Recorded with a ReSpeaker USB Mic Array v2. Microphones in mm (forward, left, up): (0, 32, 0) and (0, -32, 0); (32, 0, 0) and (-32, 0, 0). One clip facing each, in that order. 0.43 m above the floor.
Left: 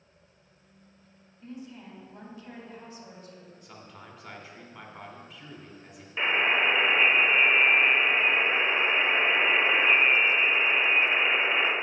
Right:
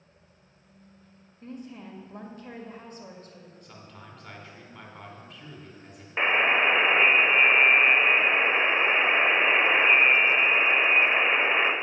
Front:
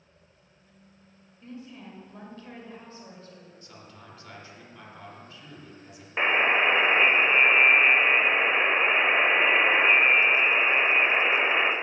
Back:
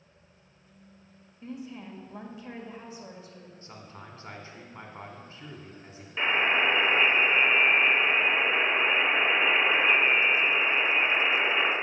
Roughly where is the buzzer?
Ahead right.